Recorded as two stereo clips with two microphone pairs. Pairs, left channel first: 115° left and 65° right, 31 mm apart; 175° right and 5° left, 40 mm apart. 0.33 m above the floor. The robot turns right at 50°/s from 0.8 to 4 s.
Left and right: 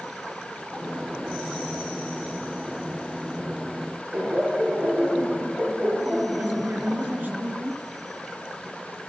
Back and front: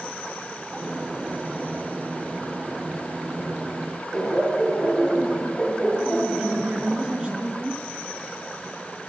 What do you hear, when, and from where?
4.1 s laughter: 95° right, 8 m
6.4 s a woman speaking: 60° right, 4.5 m